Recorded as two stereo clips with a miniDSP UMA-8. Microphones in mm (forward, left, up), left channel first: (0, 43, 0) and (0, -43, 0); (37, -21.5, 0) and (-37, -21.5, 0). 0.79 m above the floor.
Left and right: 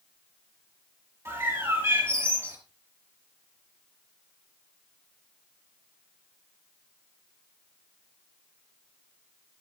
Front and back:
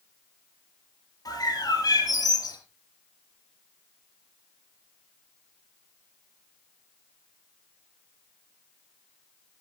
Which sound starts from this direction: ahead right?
A bird, at 1.2 s.